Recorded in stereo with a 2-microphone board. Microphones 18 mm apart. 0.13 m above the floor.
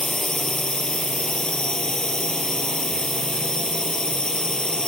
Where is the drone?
45° left (ahead or behind).